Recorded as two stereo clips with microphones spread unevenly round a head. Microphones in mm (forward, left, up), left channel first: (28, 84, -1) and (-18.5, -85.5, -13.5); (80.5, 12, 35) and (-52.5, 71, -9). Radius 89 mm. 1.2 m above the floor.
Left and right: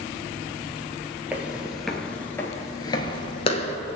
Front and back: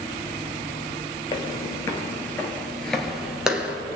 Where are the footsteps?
20° right, 1.5 m; by 3.8 s 60° left, 1.5 m.